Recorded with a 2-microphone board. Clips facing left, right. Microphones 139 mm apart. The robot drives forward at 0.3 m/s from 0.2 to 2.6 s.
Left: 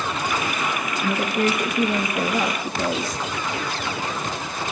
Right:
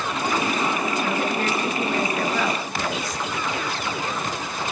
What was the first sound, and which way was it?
A woman speaking, 25° left (ahead or behind).